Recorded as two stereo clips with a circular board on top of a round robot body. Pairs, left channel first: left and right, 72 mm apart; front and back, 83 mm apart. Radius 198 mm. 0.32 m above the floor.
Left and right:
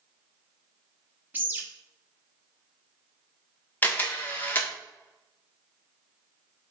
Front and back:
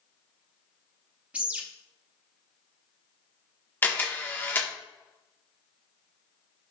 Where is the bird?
125° right, 1.0 m.